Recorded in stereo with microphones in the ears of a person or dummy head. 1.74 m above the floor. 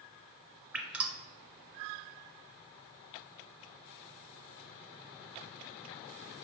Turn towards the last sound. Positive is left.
turn(degrees=-15)  # may be behind; listen again after turning